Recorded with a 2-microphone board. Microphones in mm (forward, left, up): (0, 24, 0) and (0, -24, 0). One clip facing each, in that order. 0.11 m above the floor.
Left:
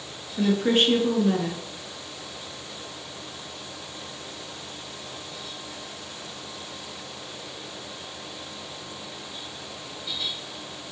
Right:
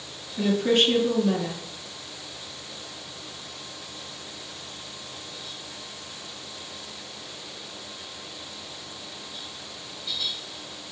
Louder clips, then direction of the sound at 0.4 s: Even; 20° left (ahead or behind).